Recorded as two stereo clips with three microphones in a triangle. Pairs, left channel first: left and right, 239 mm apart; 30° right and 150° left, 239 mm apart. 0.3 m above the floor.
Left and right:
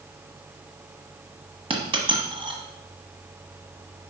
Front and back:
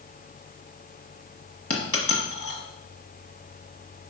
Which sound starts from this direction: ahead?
A dropped coin, at 1.7 s.